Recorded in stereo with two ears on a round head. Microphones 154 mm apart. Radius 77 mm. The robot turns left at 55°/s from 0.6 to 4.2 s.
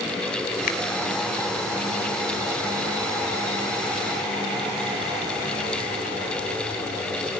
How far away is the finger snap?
About 3 m.